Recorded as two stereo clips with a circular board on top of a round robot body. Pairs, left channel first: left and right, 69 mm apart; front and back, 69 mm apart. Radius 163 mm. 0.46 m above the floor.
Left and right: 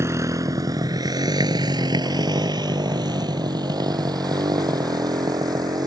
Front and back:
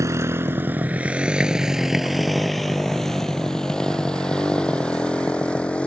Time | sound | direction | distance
0.0 | a motorcycle | 140° right | ?